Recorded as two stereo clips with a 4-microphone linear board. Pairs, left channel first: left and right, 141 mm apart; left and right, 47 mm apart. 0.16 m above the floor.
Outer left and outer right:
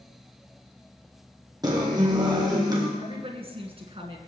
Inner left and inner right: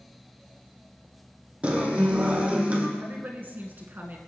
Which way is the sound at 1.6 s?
30° right (ahead or behind).